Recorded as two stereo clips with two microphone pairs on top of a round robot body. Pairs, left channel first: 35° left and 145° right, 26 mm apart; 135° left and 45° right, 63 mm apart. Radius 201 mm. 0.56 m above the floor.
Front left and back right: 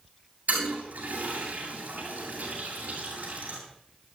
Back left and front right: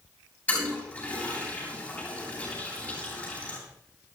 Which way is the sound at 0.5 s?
160° right.